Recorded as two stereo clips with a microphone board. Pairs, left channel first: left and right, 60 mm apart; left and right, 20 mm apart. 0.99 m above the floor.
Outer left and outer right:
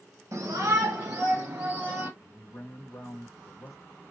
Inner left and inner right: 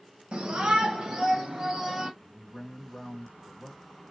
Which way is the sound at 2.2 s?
45° left (ahead or behind).